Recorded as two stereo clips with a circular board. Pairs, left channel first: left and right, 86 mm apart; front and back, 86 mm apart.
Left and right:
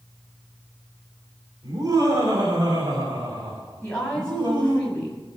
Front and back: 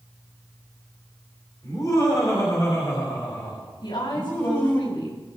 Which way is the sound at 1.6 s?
45° right.